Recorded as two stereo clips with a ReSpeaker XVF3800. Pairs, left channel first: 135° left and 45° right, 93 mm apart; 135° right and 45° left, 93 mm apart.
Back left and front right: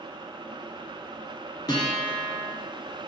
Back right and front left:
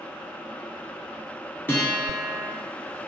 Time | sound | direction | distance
1.7 | a guitar | 160° left | 0.7 m